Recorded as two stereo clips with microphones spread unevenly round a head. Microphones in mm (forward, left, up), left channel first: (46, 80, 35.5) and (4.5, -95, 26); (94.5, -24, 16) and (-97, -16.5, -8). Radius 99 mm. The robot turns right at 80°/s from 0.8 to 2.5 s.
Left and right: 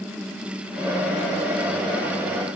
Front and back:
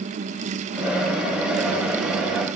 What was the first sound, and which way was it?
Only background noise.